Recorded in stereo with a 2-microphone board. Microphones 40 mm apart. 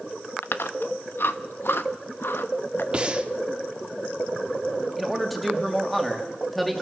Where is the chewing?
70° left (ahead or behind), 1.0 m.